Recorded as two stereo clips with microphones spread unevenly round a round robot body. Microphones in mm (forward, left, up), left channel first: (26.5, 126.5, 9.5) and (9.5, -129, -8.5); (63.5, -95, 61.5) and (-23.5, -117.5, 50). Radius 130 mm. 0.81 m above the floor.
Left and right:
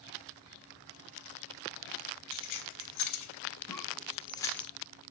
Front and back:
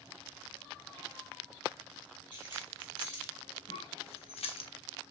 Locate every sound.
2.3 s keys jangling: 75° left, 2.5 m; by 4.7 s straight ahead, 1.5 m
3.7 s a cough: 5° left, 4.5 m